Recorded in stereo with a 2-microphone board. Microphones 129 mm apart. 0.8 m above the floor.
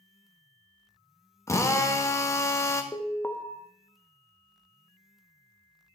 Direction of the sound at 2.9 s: 15° left (ahead or behind).